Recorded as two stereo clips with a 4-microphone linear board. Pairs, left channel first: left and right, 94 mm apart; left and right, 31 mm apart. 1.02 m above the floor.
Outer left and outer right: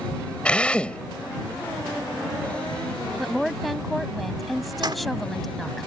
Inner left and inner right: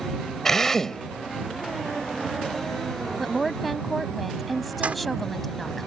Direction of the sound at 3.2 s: Centre (ahead or behind).